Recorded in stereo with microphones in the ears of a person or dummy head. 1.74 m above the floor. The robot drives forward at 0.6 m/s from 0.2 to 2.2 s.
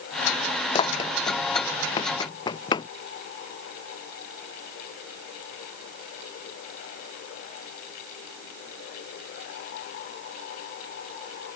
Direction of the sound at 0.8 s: 30° left (ahead or behind).